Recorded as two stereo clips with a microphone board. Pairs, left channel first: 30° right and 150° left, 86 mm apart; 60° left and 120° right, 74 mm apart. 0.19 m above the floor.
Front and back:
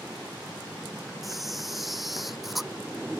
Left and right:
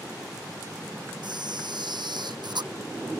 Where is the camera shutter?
120° right.